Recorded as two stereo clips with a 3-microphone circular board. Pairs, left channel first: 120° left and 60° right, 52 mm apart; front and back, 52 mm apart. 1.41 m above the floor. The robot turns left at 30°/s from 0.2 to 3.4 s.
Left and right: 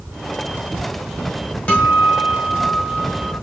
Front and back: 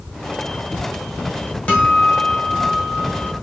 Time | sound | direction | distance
1.7 | a guitar | 60° left | 1.3 m